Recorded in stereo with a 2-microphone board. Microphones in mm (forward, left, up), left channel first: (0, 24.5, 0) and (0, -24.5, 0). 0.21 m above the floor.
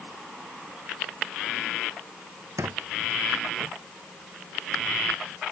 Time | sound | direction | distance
2.6 | a squeak | 75° right (ahead or behind) | ?